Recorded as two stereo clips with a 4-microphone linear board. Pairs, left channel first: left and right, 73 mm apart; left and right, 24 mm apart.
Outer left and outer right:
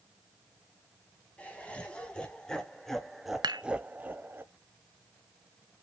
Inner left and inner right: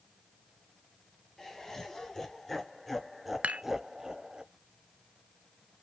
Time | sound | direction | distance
1.4 | laughter | 15° left (ahead or behind) | 1.6 m
3.4 | dishes clattering | 75° right (ahead or behind) | 0.8 m